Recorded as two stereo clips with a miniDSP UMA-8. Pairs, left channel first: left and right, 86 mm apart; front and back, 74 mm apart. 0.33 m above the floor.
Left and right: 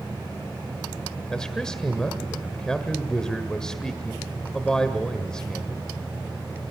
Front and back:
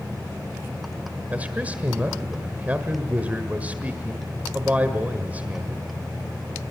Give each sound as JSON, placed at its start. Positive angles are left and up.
{"t": 1.3, "sound": "a man speaking", "azimuth_deg": 160, "distance_m": 1.5}